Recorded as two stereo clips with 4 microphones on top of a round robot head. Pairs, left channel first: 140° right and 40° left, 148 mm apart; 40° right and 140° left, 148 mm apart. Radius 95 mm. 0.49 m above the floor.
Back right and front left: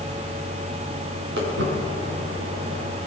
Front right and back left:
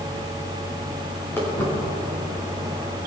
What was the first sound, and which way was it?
Footsteps, 35° left.